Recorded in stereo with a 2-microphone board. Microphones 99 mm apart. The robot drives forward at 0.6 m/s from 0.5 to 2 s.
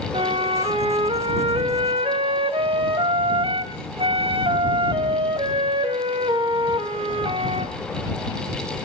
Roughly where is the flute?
Right.